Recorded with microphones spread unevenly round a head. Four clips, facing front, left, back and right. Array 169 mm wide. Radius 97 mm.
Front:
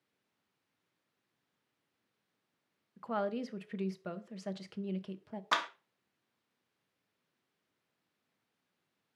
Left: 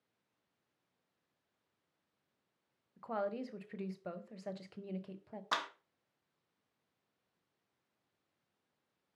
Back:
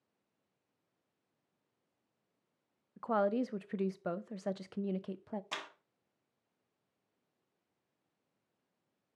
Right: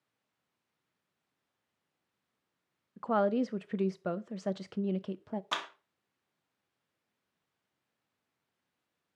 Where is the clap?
Straight ahead, 1.2 m.